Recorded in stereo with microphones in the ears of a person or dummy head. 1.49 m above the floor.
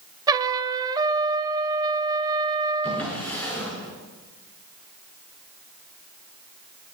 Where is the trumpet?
15° right (ahead or behind), 0.7 m.